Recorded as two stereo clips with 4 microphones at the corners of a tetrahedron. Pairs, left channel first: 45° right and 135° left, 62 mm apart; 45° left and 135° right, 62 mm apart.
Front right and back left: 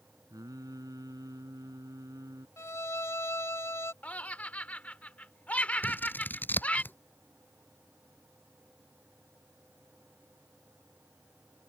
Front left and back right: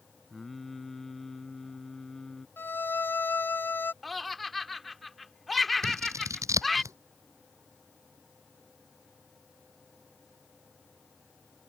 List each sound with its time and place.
0.3 s singing: 130° left
2.6 s a violin: 5° right
4.0 s laughter: 40° right
5.8 s scissors: 105° right